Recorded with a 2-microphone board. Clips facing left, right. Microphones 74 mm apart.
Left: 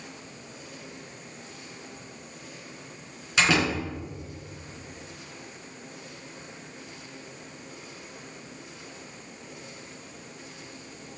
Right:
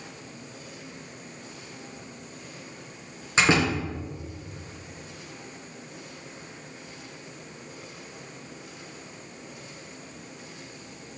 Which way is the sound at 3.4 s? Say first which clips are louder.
Right 2 dB; 25° right (ahead or behind).